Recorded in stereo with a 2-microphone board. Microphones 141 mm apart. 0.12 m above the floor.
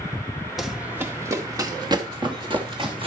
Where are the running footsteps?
Centre (ahead or behind), 1.0 m; by 3.1 s 40° right (ahead or behind), 3 m.